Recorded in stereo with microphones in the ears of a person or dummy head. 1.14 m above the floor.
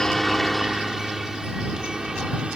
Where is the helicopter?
5° left (ahead or behind); by 2.6 s 5° right (ahead or behind).